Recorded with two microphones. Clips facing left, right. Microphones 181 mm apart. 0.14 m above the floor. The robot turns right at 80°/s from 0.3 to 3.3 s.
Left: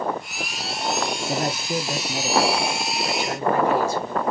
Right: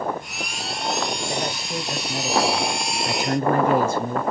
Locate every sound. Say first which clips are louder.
1.3 s a man speaking: left 3 dB; 95° left, 1.7 m; by 4.2 s 105° right, 1.7 m